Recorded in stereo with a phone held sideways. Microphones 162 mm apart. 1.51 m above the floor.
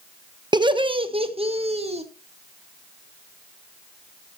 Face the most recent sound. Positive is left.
turn(degrees=-40)  # may be behind; listen again after turning